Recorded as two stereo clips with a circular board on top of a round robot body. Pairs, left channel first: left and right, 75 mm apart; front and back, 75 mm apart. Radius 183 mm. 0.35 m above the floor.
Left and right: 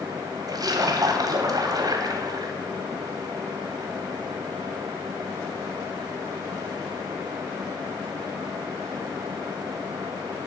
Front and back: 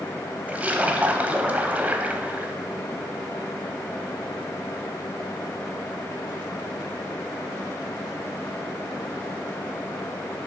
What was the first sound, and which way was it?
A splash, 110° right.